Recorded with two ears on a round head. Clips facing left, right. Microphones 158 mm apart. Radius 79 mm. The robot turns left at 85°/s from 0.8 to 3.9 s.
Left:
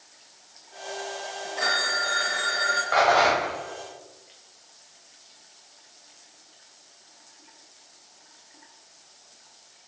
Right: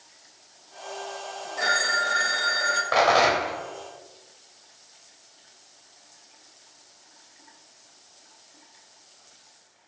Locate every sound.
1.6 s a phone ringing: straight ahead, 0.6 m; by 2.8 s 105° right, 0.6 m
2.9 s a rattle: 65° right, 1.1 m; by 3.6 s 120° right, 1.1 m